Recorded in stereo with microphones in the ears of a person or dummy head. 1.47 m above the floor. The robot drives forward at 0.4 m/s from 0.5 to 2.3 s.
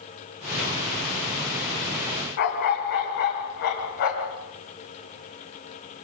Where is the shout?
No shout in this recording.